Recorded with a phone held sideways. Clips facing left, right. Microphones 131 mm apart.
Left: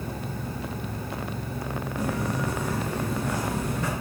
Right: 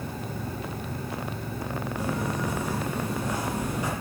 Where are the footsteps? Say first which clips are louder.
Left 2 dB; 15° right (ahead or behind), 10 m.